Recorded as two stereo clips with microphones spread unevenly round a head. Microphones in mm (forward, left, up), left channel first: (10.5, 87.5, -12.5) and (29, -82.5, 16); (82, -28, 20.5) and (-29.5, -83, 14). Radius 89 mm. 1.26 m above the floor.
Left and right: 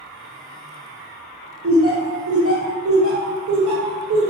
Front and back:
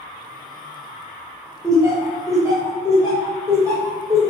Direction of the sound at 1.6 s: 90° right.